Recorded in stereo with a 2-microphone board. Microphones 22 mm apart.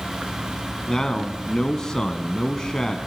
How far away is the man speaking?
About 1.8 m.